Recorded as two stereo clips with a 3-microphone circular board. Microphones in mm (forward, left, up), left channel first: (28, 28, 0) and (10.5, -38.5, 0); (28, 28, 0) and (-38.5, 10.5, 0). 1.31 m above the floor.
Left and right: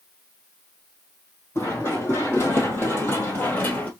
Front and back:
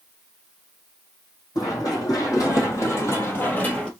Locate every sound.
1.6 s running footsteps: 25° left, 3 m; by 3.9 s 75° left, 1.4 m